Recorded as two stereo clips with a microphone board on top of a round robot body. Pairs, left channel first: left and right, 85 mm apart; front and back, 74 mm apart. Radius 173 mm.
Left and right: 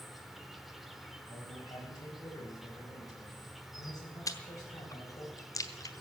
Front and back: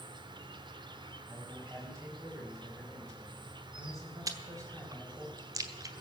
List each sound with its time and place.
0.0 s an insect: straight behind, 1.1 m
1.3 s a man speaking: 135° left, 5 m
4.3 s chewing: 140° left, 1.1 m